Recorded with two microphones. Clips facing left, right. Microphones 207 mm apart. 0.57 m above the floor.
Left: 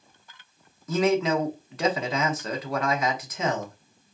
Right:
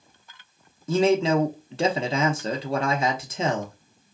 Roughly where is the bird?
I don't hear a bird.